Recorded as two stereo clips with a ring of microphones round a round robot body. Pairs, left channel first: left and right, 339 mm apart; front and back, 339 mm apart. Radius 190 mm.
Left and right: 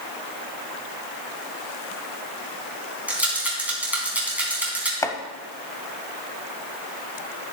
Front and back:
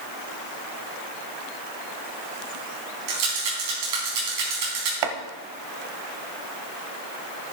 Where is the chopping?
170° left, 0.9 m.